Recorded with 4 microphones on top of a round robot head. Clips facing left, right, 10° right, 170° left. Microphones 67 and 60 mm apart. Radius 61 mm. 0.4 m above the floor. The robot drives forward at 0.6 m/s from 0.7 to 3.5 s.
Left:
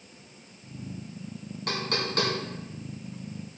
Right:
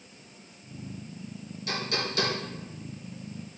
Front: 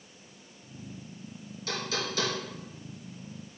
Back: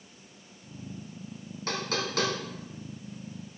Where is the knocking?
125° left, 2.5 m; by 3.6 s 145° left, 3.5 m.